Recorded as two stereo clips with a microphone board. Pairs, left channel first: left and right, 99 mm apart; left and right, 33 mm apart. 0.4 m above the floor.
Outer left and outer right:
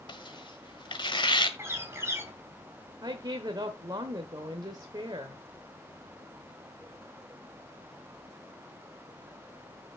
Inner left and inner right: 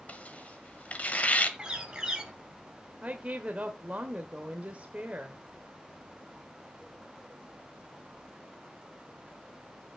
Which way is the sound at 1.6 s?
25° right (ahead or behind).